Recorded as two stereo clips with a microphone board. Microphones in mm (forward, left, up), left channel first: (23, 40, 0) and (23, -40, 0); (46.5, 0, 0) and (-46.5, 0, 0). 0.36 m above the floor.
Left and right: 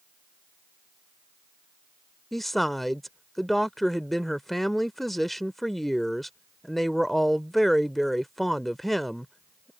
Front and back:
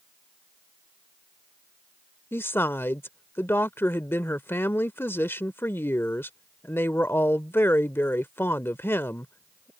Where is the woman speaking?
Straight ahead.